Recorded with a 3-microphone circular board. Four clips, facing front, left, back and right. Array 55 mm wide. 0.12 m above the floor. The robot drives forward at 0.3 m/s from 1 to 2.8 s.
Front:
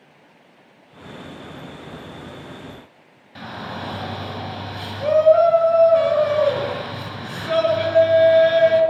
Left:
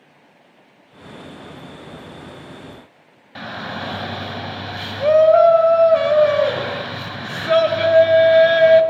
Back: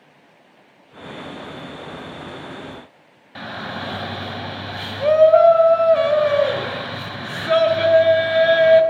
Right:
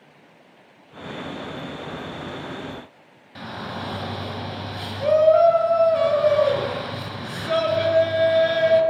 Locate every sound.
3.4 s a shout: 130° left, 1.7 m